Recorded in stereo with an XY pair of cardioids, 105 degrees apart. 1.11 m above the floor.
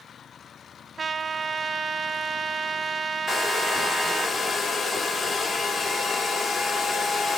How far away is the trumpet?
About 0.8 m.